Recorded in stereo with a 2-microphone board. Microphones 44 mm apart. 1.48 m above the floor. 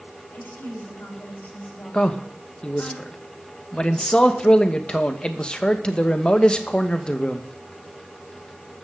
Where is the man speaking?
20° left (ahead or behind), 1.2 m.